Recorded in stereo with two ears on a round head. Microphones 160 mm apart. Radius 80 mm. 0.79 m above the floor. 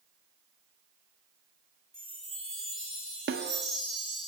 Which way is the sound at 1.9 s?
5° left (ahead or behind).